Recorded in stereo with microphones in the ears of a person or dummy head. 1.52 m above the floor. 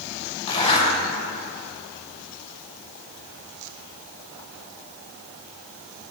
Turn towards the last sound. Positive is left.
turn(degrees=35)  # may be behind; listen again after turning